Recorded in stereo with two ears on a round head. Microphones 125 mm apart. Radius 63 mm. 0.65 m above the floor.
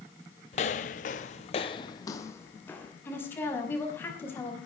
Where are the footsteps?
50° left (ahead or behind), 1.4 m; by 2.9 s 10° left (ahead or behind), 3 m.